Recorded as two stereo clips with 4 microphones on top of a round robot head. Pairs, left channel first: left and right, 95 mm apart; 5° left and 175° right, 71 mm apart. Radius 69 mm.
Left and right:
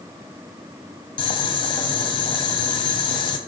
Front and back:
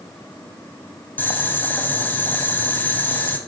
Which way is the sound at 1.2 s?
65° left.